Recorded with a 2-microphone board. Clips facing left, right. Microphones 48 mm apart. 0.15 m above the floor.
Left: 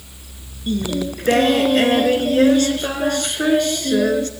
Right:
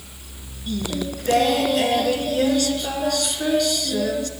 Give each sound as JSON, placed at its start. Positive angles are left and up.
{"t": 0.7, "sound": "singing", "side_deg": 40, "distance_m": 1.9}